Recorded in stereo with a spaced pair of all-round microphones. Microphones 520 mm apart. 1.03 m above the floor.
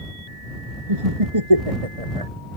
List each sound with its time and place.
0.9 s laughter: 80° right